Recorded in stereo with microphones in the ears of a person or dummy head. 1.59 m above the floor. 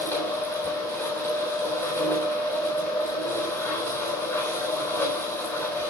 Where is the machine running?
15° left (ahead or behind), 3.5 m.